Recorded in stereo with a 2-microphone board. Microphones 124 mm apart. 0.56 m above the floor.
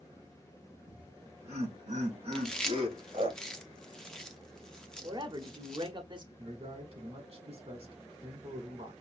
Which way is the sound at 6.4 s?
50° right (ahead or behind).